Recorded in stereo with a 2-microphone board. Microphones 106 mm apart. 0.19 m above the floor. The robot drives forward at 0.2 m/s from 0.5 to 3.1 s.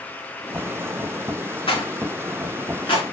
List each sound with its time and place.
1.7 s a rattle: 55° left (ahead or behind), 1.2 m; by 3.0 s 50° left (ahead or behind), 1.3 m